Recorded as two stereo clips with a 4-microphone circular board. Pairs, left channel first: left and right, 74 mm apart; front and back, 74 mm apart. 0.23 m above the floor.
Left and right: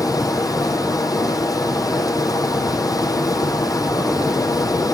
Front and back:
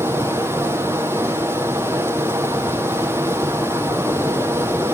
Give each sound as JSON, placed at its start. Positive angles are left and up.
{"t": 0.0, "sound": "running water", "azimuth_deg": 120, "distance_m": 4.0}